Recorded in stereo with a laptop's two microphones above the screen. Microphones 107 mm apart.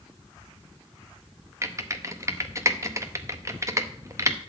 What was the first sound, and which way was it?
Typing on a keyboard, 30° right (ahead or behind).